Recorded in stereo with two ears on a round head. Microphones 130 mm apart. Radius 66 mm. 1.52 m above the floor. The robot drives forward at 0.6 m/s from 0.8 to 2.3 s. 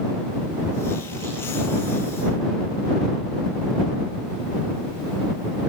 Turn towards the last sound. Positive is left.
No sound to turn to.